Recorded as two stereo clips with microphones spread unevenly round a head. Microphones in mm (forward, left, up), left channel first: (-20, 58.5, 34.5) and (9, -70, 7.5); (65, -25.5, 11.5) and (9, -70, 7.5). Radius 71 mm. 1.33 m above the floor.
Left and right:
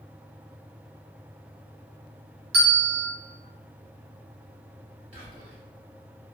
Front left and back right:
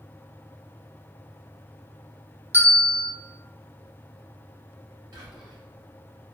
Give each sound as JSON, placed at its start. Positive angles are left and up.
{"t": 2.5, "sound": "a bell", "azimuth_deg": -85, "distance_m": 1.9}
{"t": 5.1, "sound": "whispering", "azimuth_deg": -125, "distance_m": 1.7}